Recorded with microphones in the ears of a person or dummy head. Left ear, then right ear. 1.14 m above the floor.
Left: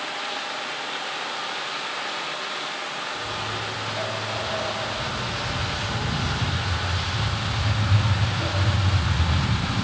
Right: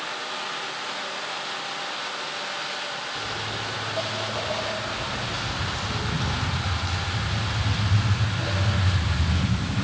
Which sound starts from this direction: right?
Footsteps, at 3.1 s.